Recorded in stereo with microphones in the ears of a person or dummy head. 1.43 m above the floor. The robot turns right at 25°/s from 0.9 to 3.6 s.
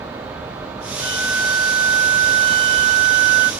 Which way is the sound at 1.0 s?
165° left.